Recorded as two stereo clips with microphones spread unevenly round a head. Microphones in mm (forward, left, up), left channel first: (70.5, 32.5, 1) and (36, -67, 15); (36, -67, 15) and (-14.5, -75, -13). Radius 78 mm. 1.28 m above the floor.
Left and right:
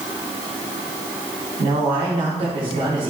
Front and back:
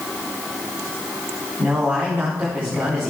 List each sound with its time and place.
1.6 s a man speaking: 115° right, 3 m